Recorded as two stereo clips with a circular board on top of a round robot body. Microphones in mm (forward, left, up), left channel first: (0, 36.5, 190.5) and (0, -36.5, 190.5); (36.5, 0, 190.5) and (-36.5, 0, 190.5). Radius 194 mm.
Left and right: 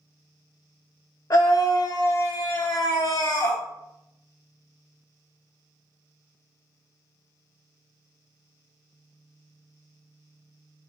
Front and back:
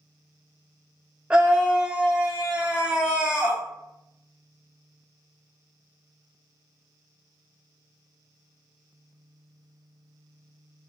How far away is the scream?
About 0.6 m.